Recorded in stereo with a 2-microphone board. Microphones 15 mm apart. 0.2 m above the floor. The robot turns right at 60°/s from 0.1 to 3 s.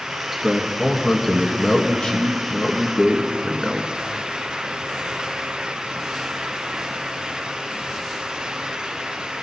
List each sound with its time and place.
0.3 s a man speaking: 30° right, 2 m; by 3.9 s 135° left, 2 m